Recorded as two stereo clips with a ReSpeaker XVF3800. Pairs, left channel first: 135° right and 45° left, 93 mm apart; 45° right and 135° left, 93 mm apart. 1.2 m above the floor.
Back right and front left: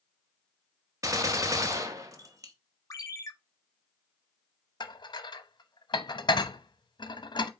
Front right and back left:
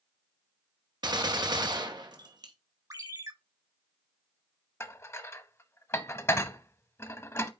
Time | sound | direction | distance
1.0 | a gunshot | 95° left | 1.0 m
2.9 | a ringtone | straight behind | 1.0 m
4.8 | dishes clattering | 105° right | 0.7 m